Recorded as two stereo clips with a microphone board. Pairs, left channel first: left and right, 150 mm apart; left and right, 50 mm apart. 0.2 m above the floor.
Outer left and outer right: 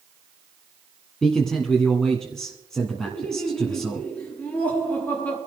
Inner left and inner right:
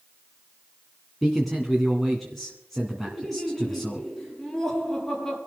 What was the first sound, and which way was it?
A man speaking, 5° left (ahead or behind).